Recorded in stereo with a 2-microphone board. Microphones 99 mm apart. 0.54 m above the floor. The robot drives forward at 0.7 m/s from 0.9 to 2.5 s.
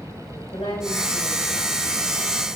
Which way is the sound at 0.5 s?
65° left (ahead or behind).